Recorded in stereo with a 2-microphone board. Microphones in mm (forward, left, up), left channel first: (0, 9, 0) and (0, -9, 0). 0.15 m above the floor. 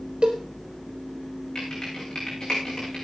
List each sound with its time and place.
0.2 s a cowbell: 60° right (ahead or behind), 4 m
1.6 s typing on a keyboard: 35° left (ahead or behind), 9.5 m